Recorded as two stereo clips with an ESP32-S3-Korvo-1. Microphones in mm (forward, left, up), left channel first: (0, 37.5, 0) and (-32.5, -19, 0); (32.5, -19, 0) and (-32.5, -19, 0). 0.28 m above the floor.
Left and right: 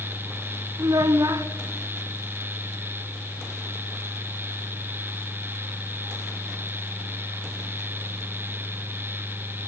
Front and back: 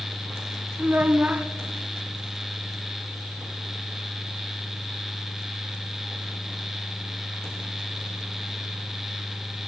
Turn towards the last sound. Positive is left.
turn(degrees=-115)